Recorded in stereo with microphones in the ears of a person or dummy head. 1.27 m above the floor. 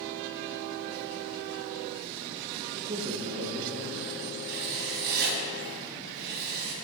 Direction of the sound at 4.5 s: 55° right (ahead or behind).